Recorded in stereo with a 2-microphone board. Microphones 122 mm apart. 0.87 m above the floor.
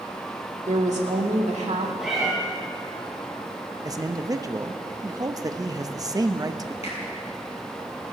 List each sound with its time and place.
0.7 s a woman speaking: 70° right (ahead or behind), 2.5 m
2.0 s a cat meowing: centre (ahead or behind), 5.5 m
3.9 s a man speaking: 30° right (ahead or behind), 0.8 m
6.8 s a finger snap: 60° left (ahead or behind), 5.5 m